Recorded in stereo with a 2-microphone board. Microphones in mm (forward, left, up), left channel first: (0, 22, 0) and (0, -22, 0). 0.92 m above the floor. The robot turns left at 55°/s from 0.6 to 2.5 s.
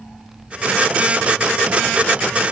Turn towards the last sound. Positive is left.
No sound to turn to.